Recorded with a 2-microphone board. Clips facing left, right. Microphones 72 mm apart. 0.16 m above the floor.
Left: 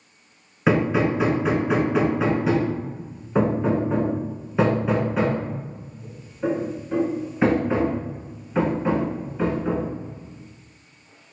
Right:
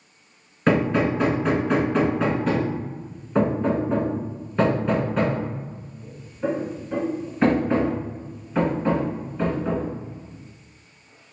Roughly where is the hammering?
Centre.